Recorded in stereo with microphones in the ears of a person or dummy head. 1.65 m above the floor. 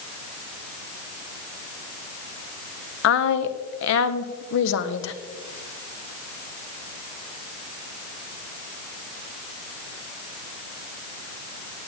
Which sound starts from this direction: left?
A woman speaking, at 3.0 s.